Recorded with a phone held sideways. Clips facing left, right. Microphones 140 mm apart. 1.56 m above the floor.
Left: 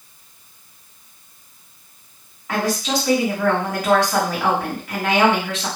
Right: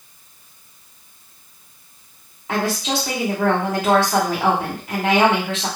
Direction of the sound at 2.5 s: 25° right (ahead or behind).